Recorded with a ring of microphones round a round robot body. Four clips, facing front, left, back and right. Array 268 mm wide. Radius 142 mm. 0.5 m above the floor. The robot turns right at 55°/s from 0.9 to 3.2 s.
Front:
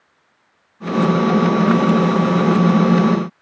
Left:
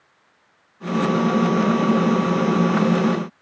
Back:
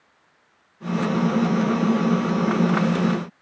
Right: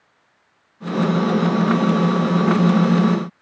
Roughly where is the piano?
I don't hear a piano.